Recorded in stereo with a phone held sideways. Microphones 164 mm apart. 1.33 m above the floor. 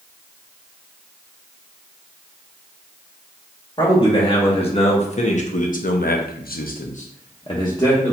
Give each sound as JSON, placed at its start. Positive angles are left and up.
{"t": 3.8, "sound": "a man speaking", "side_deg": 30, "distance_m": 1.7}